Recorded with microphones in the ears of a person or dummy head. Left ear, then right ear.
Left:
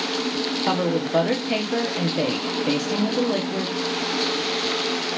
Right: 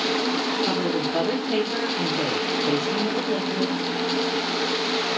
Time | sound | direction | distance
0.6 | a woman speaking | 60° left (ahead or behind) | 1.0 m